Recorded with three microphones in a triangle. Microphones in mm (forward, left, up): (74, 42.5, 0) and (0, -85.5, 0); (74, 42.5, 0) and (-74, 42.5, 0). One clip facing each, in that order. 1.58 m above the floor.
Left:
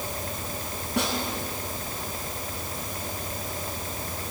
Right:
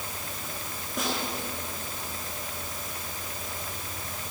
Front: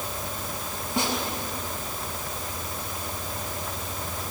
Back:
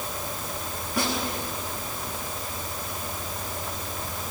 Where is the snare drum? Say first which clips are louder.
Left 4 dB, even; 65° left, 8 m.